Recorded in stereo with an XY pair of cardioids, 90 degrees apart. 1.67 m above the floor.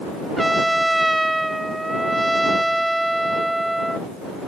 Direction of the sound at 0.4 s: 10° right.